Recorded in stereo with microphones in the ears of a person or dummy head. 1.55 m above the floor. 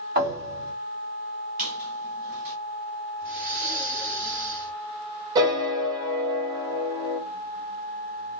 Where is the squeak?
40° right (ahead or behind), 1.2 m.